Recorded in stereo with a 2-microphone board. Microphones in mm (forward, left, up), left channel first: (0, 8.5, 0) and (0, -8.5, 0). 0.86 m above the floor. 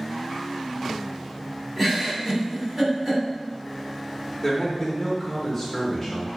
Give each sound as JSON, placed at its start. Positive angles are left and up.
{"t": 1.8, "sound": "a giggle", "side_deg": -15, "distance_m": 1.7}
{"t": 4.4, "sound": "a man speaking", "side_deg": 5, "distance_m": 0.5}